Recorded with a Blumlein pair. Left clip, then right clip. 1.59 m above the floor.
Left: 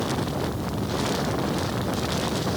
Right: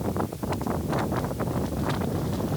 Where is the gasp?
I don't hear a gasp.